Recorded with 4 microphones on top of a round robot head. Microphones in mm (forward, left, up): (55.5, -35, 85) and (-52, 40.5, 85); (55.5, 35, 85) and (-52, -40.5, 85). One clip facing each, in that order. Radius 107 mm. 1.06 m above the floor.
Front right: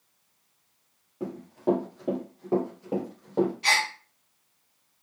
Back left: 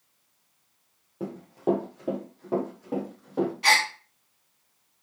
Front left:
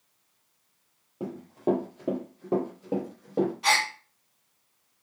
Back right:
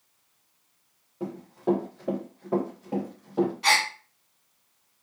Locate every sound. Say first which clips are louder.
1.2 s running footsteps: even, even; 85° left, 1.4 m; by 3.5 s 30° left, 1.9 m
3.6 s a gasp: back left 3 dB, back right 1 dB; 125° left, 0.7 m